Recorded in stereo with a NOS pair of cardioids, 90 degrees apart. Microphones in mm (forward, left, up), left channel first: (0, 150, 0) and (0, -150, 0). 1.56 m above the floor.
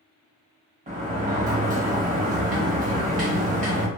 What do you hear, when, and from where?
0.9 s a sliding door: 25° right, 1.1 m